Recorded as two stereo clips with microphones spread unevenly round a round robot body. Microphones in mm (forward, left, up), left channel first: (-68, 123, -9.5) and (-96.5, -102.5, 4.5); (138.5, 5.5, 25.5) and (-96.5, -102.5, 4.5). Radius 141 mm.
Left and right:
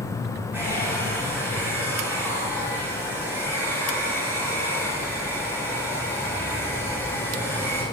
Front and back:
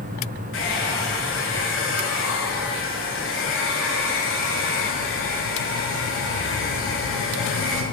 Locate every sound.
0.5 s a hair dryer: 15° right, 6.5 m